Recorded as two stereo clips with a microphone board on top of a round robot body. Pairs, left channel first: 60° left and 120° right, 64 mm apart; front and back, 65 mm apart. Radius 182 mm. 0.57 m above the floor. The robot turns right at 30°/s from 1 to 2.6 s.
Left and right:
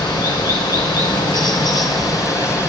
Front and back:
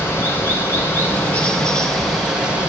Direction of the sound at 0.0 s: 60° left.